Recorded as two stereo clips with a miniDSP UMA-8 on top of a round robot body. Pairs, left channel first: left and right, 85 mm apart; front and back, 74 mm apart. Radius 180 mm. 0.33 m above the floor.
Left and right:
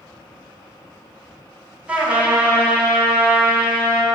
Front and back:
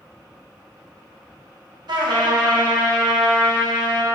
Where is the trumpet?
170° right, 2.5 m.